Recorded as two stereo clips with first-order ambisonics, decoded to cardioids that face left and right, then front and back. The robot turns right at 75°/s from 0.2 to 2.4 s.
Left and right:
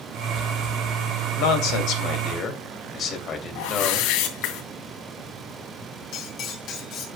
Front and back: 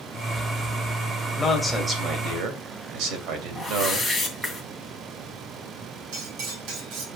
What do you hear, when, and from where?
1.4 s a man speaking: 70° left, 3 m; by 4.1 s 150° left, 3 m
3.5 s a whoosh: 95° left, 2.5 m
6.1 s cutlery clinking: 140° left, 3 m